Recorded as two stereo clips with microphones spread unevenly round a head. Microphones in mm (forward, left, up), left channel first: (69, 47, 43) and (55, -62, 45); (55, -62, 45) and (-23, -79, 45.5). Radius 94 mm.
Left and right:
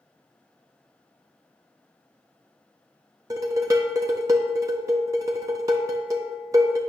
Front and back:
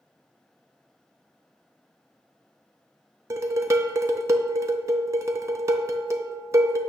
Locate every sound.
3.3 s dishes clattering: 155° right, 0.5 m